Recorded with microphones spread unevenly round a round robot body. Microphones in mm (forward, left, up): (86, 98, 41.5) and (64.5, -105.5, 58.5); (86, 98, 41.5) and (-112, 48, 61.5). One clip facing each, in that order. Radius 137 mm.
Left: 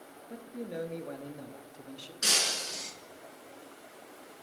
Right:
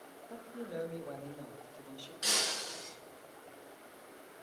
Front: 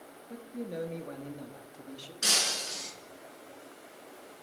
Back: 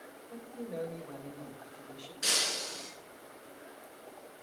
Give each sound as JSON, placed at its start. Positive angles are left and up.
{"t": 0.3, "sound": "a man speaking", "azimuth_deg": 25, "distance_m": 1.2}
{"t": 2.2, "sound": "breaking glass", "azimuth_deg": 50, "distance_m": 3.0}